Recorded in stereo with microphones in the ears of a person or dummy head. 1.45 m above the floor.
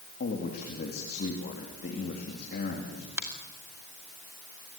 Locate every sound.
0.2 s a man speaking: 55° left (ahead or behind), 3 m
3.2 s a finger snap: 10° right (ahead or behind), 2.5 m